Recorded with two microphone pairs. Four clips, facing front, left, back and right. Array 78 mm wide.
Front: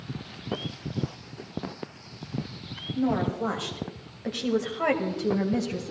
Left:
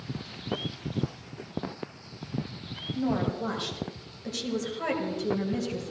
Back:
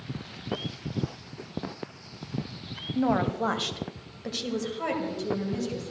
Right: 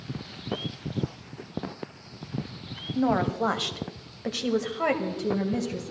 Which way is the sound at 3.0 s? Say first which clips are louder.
Right 4 dB, back 1 dB; 130° right.